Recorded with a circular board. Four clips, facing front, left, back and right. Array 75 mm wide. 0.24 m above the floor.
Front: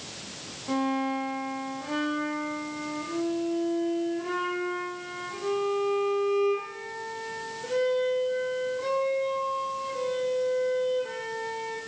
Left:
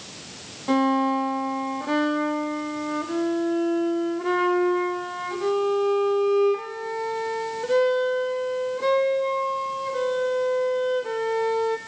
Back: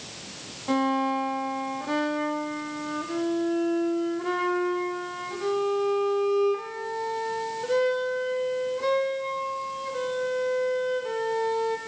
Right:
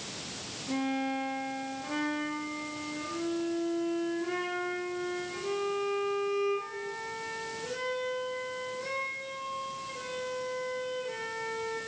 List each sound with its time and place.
0.7 s a violin: 110° left, 3.5 m